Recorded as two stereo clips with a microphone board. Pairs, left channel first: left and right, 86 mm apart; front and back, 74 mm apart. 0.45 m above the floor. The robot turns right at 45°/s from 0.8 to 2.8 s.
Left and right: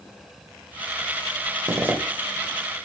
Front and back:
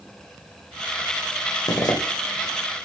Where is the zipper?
30° right, 0.8 m; by 2.0 s 20° right, 0.8 m.